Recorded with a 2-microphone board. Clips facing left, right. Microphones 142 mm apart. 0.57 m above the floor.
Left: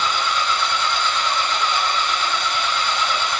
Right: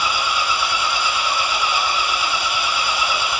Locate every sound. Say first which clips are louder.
0.0 s an engine running: even; 10° right (ahead or behind), 1.9 m